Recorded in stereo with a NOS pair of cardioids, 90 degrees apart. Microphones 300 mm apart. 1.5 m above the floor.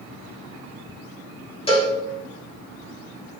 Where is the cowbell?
20° left, 3 m.